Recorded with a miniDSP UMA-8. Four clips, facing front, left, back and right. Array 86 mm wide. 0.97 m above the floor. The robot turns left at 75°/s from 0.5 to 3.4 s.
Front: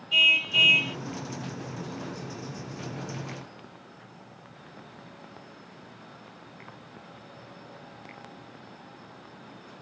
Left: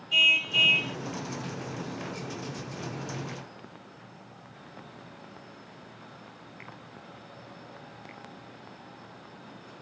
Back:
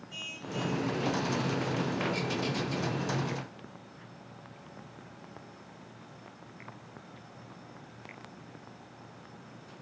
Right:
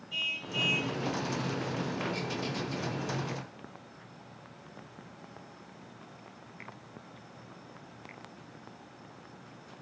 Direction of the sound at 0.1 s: 40° left.